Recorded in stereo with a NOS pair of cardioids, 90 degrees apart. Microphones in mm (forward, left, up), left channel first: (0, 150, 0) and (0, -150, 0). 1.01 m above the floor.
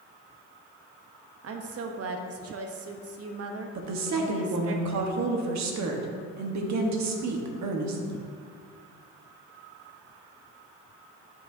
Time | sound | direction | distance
1.4 | a woman speaking | 50° right | 1.0 m
3.8 | a woman speaking | 65° right | 1.4 m